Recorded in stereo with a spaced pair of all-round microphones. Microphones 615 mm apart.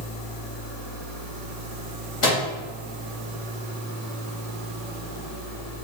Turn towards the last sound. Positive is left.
turn(degrees=55)  # may be behind; listen again after turning